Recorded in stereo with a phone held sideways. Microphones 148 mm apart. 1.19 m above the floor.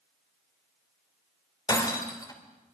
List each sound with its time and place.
1.7 s breaking glass: 25° left (ahead or behind), 3 m